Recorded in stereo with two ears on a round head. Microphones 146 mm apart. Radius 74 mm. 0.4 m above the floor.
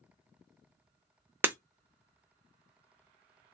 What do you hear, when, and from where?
1.4 s breaking glass: 15° right (ahead or behind), 0.6 m